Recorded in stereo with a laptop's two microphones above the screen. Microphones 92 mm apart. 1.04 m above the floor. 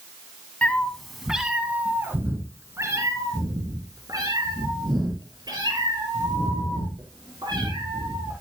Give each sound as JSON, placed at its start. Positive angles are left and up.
{"t": 0.6, "sound": "a cat meowing", "side_deg": 15, "distance_m": 1.3}